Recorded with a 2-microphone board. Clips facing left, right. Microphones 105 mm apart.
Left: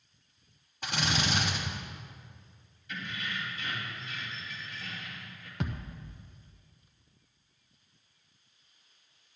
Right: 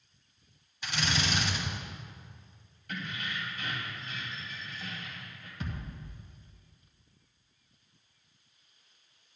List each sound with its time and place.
0.8 s a drill: 50° left (ahead or behind), 1.9 m
2.9 s keys jangling: 60° right (ahead or behind), 2.5 m
5.6 s a thud: 75° left (ahead or behind), 0.8 m